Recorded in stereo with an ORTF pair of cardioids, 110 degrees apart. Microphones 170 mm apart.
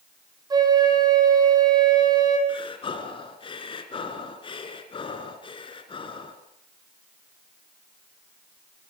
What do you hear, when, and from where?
0.5 s a flute: 25° right, 6 m
2.5 s breathing: 30° left, 3 m